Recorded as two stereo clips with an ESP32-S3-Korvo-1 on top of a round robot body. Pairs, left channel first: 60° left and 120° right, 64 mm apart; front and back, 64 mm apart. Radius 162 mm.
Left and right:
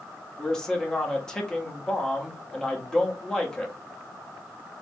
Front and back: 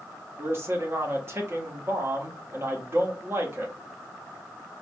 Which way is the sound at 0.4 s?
140° left.